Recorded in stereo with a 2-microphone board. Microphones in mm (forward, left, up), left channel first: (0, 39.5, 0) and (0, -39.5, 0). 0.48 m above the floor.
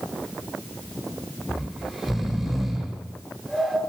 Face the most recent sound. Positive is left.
turn(degrees=0)  # may be behind; listen again after turning